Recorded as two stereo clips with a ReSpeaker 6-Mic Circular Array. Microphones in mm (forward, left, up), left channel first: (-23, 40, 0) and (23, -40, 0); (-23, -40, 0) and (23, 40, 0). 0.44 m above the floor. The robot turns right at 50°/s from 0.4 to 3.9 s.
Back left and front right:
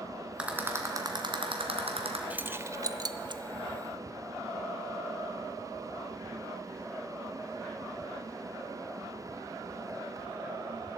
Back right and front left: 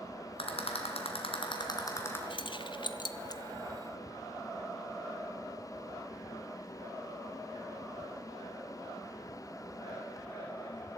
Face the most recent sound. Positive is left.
turn(degrees=-55)